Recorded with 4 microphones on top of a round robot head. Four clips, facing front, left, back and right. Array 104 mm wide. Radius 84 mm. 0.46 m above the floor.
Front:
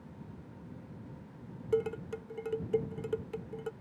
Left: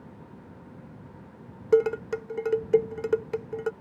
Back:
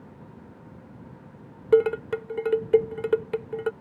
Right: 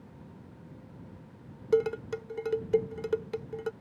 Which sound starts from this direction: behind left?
Dishes clattering, at 1.7 s.